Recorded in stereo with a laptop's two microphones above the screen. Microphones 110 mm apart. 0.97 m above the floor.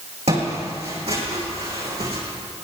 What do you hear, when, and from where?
0.3 s footsteps: 75° right (ahead or behind), 3.5 m; by 2.2 s 65° right (ahead or behind), 4 m